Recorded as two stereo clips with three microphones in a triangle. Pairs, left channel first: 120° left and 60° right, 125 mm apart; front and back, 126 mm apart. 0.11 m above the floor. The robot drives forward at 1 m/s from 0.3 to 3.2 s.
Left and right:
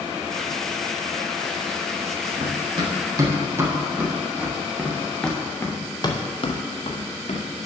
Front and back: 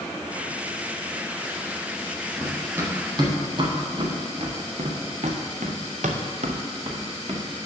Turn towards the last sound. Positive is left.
turn(degrees=140)